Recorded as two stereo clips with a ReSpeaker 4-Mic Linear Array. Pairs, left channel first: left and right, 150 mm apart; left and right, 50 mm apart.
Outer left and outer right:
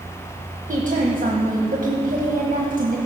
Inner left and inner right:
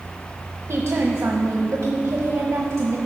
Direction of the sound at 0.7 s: 60° right (ahead or behind).